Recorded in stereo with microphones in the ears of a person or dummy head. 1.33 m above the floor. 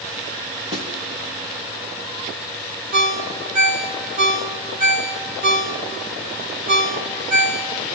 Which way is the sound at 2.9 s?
40° right (ahead or behind).